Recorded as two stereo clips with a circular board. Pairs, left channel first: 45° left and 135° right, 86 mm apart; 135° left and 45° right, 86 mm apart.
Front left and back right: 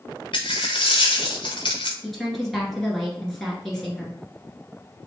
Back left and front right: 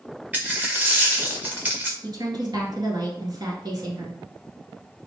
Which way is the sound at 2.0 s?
40° right.